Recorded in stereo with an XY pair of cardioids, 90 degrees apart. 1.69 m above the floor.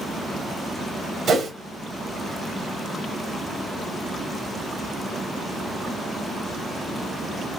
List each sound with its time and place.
1.3 s a whoosh: 65° right, 1.0 m